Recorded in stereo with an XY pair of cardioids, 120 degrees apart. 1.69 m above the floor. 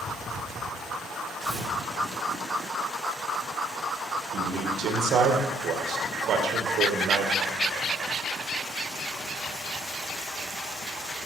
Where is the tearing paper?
25° right, 7 m.